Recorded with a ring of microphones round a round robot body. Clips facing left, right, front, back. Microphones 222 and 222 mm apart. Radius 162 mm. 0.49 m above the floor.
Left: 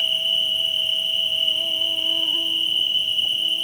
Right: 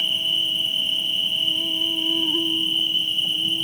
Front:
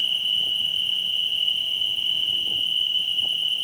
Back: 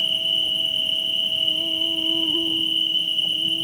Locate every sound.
0.0 s an insect: 125° right